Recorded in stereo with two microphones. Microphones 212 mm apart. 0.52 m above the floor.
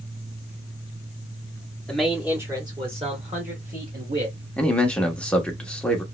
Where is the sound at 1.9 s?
5° left (ahead or behind), 1.1 m; by 4.4 s 45° right (ahead or behind), 1.8 m.